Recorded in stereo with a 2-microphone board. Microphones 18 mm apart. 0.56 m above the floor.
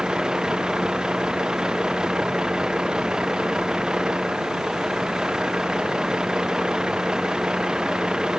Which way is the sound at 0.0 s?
55° right (ahead or behind).